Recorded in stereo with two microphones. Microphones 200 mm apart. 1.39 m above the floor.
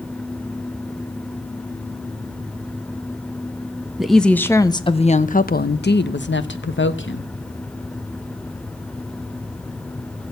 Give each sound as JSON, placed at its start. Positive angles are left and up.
{"t": 4.0, "sound": "a woman speaking", "side_deg": 0, "distance_m": 1.2}